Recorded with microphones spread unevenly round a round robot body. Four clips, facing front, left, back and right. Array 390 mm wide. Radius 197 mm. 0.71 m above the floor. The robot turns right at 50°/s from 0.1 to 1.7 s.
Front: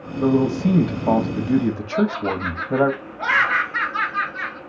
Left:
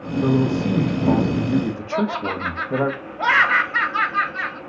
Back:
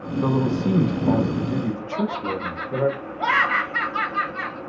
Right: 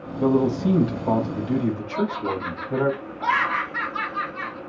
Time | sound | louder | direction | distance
0.2 | a man speaking | even, front 4 dB | 55° right | 1.3 m
1.9 | laughter | left 2 dB, front 4 dB | 85° left | 2.5 m